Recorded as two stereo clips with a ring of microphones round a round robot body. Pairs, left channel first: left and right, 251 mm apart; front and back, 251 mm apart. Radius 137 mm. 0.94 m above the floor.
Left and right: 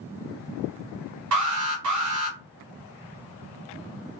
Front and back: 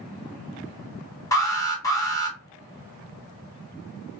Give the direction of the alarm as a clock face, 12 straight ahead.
3 o'clock.